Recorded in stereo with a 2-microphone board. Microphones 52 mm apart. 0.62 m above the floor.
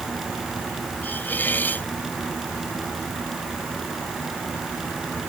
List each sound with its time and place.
1.0 s a hiss: 35° left (ahead or behind)